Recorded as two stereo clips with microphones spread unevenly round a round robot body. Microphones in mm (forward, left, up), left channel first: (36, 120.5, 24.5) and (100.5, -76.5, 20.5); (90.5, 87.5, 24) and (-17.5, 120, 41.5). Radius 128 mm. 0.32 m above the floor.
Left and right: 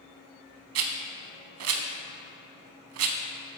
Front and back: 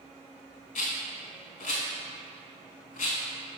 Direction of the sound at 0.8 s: 55° right.